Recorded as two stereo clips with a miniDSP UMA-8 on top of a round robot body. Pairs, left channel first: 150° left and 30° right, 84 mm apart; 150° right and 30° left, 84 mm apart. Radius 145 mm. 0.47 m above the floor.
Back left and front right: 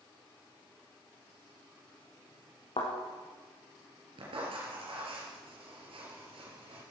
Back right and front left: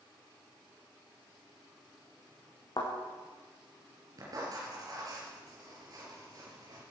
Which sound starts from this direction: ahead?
Writing, at 4.2 s.